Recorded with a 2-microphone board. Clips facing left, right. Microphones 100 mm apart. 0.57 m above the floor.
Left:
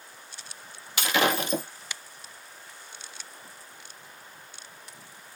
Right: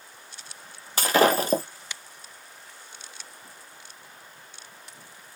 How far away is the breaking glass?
About 0.7 m.